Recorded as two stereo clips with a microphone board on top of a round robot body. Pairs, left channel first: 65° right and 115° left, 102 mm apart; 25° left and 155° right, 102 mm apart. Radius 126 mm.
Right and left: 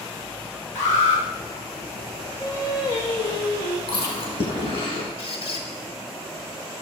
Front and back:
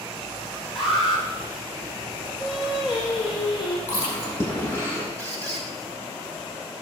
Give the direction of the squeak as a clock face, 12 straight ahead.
2 o'clock.